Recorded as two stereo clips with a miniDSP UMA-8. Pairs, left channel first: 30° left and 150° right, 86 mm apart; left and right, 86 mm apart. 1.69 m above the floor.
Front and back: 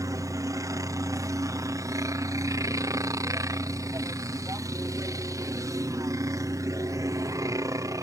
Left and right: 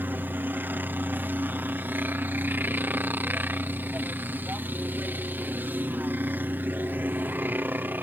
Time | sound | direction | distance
0.0 | a helicopter | 145° right | ?